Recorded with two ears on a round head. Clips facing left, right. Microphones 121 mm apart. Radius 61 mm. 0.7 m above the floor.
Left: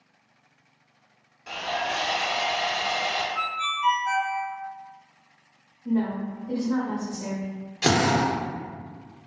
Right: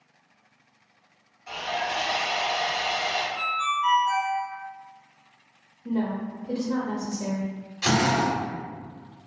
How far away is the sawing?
About 1.2 m.